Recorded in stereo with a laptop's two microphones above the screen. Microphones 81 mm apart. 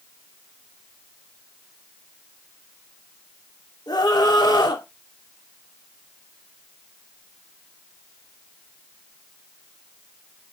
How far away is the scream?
About 3 m.